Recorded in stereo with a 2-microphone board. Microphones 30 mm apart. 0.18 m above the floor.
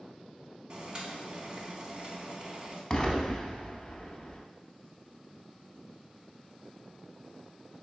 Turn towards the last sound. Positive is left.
turn(degrees=25)  # may be behind; listen again after turning